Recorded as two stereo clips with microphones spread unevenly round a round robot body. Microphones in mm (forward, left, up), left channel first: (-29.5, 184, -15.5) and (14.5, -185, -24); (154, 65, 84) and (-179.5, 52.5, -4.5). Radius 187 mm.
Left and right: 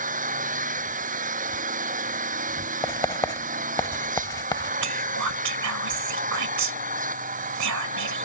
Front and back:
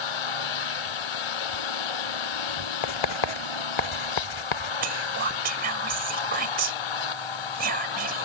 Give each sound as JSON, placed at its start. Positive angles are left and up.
{"t": 0.0, "sound": "an engine running", "azimuth_deg": -15}
{"t": 2.8, "sound": "writing", "azimuth_deg": 15}
{"t": 4.8, "sound": "whispering", "azimuth_deg": -125}